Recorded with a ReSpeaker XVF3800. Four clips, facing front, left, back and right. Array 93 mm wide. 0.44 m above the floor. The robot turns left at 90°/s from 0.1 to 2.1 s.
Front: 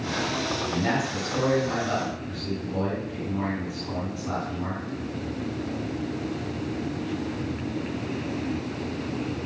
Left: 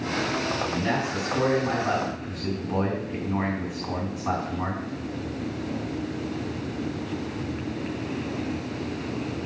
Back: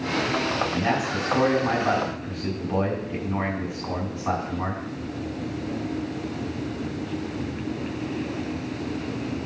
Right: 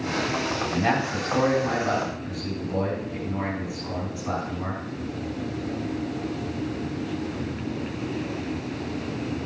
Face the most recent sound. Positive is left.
turn(degrees=145)